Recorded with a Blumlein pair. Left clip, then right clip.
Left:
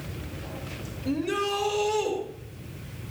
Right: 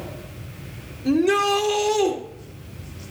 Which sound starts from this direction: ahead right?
A shout, at 1.1 s.